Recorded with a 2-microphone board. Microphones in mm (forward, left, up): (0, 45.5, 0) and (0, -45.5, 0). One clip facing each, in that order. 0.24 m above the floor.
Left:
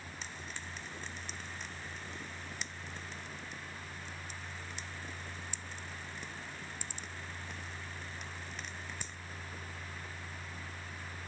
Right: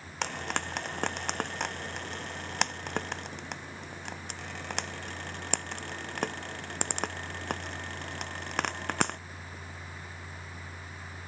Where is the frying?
75° right (ahead or behind).